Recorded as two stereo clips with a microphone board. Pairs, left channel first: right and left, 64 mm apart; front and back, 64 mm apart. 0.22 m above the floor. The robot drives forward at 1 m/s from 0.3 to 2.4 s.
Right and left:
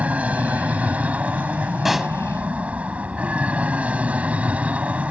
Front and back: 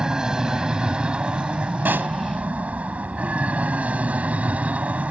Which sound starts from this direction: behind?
A pop, at 1.9 s.